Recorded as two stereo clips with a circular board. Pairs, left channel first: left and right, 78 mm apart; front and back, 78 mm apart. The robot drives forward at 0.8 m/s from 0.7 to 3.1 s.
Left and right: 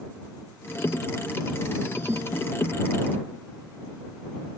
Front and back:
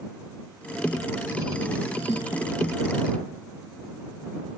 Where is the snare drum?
30° right.